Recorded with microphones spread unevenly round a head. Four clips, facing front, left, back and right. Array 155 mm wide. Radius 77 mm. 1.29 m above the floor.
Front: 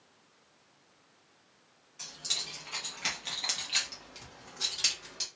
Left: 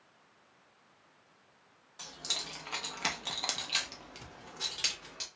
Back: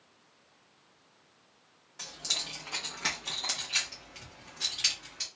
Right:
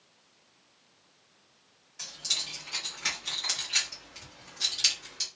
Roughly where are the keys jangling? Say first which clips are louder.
Left 1 dB, back 3 dB; behind left.